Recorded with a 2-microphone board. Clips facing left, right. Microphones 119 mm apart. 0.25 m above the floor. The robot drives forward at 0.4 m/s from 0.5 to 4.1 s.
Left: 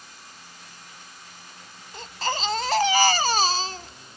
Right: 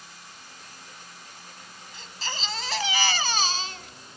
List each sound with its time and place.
1.9 s a baby crying: 55° left (ahead or behind), 0.8 m; by 3.9 s 35° left (ahead or behind), 1.1 m